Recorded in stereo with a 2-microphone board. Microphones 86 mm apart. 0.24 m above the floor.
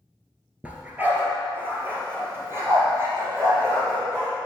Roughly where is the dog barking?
Centre.